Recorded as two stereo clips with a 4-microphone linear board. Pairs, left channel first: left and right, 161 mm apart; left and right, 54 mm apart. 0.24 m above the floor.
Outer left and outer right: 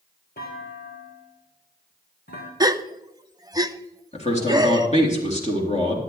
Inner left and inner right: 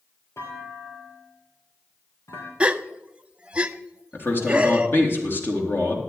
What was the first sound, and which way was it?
A clunk, 80° left.